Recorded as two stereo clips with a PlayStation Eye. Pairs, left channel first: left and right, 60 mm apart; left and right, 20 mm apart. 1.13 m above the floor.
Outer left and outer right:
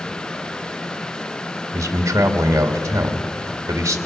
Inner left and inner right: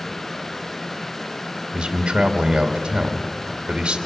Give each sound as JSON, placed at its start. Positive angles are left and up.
{"t": 1.7, "sound": "a man speaking", "side_deg": -50, "distance_m": 2.0}